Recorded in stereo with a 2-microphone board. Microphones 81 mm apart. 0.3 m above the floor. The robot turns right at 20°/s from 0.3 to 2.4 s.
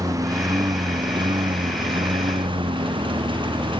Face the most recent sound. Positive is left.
turn(degrees=-85)